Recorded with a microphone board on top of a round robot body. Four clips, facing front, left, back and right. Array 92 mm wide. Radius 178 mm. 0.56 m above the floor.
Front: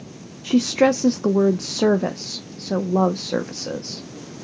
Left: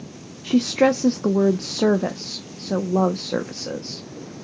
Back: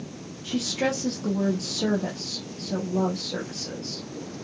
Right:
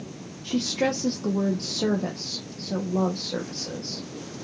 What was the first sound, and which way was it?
A woman speaking, 40° left.